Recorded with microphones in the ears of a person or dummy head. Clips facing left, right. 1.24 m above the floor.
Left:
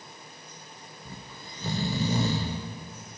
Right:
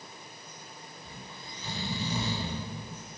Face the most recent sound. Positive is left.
turn(degrees=35)  # may be behind; listen again after turning